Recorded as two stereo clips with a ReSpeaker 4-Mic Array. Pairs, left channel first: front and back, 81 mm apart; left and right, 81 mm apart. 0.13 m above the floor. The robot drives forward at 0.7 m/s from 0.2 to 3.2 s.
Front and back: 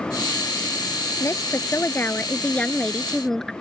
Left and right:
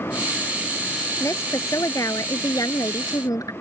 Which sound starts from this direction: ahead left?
A woman speaking, at 1.2 s.